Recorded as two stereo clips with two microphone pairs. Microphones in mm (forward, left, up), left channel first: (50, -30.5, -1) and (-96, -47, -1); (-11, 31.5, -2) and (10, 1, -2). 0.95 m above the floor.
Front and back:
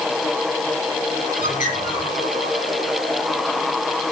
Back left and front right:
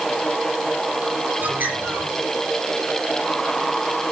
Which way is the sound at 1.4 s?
30° right.